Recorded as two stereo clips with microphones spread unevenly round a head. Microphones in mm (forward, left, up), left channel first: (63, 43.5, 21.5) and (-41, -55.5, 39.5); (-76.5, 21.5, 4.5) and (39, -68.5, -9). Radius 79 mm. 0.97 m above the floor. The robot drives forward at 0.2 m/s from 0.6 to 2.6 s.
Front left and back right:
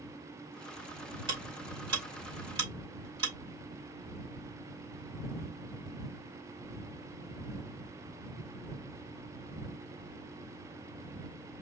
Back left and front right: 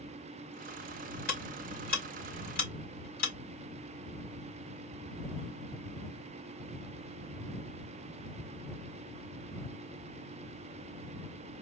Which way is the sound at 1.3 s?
165° left.